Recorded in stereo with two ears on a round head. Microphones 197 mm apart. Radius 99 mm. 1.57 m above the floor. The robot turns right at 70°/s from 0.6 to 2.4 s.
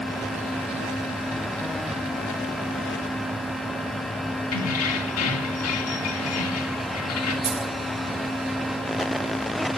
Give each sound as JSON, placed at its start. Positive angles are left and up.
{"t": 4.5, "sound": "keys jangling", "side_deg": 75, "distance_m": 2.0}
{"t": 7.4, "sound": "a dropped coin", "side_deg": -30, "distance_m": 1.1}